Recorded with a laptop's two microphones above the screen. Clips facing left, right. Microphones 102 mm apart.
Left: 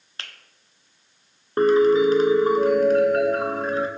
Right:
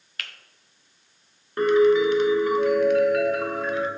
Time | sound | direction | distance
0.2 | a finger snap | 25° left (ahead or behind) | 0.7 m
1.6 | a piano | 35° left (ahead or behind) | 0.7 m